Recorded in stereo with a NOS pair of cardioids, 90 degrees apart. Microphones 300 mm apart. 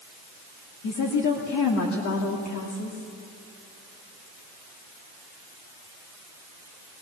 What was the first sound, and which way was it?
A woman speaking, 65° left.